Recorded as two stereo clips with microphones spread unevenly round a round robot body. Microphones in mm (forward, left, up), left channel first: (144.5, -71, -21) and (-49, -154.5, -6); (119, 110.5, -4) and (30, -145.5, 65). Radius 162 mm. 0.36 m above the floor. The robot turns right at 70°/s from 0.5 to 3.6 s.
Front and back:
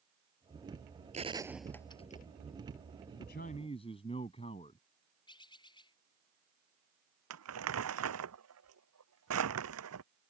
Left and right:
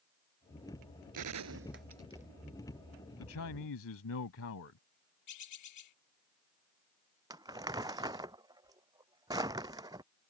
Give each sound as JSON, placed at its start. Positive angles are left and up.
{"t": 1.1, "sound": "a gunshot", "azimuth_deg": -100}
{"t": 3.2, "sound": "a man speaking", "azimuth_deg": 65}
{"t": 5.3, "sound": "a bird", "azimuth_deg": 100}
{"t": 7.3, "sound": "crumpling", "azimuth_deg": 175}